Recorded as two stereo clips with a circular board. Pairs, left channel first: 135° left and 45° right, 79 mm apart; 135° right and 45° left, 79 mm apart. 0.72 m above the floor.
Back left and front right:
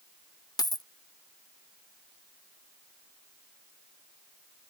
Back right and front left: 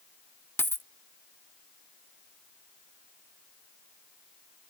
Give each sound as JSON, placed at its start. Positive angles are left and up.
{"t": 0.6, "sound": "a dropped coin", "azimuth_deg": 165}